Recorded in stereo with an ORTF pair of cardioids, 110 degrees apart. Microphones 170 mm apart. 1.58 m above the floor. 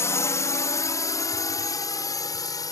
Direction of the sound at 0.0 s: 15° left.